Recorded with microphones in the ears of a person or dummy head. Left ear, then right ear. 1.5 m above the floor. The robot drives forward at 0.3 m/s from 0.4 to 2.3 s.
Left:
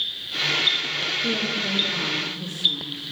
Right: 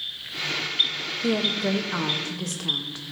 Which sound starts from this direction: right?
A woman speaking, at 1.2 s.